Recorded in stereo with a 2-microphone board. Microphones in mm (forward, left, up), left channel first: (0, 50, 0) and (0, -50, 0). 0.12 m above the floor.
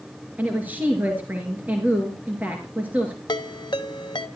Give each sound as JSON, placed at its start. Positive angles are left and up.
{"t": 0.4, "sound": "a woman speaking", "side_deg": -15, "distance_m": 2.5}
{"t": 3.3, "sound": "a ringtone", "side_deg": 50, "distance_m": 0.8}